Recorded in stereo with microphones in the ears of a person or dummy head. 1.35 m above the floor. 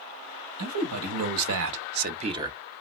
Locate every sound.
0.6 s a man speaking: 80° right, 1.4 m; by 2.6 s 10° right (ahead or behind), 0.6 m